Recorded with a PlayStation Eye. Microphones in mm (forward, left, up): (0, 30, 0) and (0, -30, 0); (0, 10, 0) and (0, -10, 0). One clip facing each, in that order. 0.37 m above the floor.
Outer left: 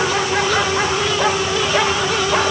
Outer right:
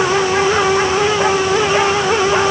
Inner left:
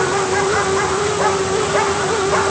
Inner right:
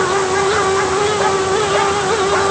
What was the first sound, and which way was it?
Only background noise.